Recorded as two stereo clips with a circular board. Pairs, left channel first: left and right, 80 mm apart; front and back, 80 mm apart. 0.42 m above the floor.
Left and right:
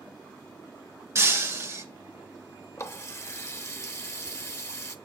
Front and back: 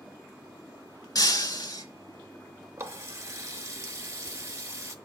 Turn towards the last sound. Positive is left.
turn(degrees=135)